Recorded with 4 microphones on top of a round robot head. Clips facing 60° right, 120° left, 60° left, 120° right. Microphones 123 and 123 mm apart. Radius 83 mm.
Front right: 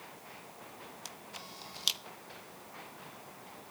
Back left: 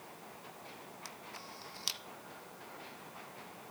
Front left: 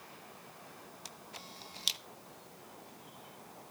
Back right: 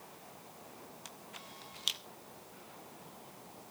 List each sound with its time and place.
1.1 s a camera shutter: 10° left, 0.7 m